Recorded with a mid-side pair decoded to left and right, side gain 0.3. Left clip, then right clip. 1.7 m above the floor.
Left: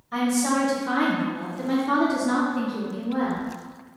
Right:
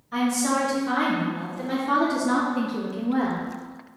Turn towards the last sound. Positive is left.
turn(degrees=-75)